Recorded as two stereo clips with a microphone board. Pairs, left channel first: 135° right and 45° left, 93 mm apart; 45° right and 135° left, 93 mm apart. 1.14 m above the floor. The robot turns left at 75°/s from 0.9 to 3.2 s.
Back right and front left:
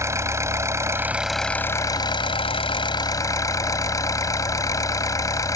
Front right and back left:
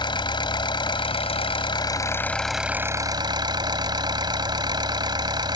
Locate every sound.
0.0 s an engine running: 15° right; by 5.6 s 175° left